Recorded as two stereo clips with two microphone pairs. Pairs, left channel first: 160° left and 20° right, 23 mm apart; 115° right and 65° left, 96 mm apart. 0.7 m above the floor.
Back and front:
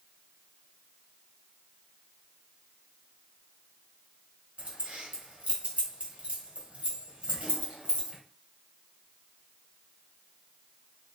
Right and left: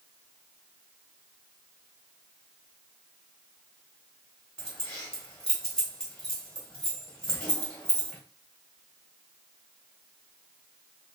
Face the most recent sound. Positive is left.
turn(degrees=-35)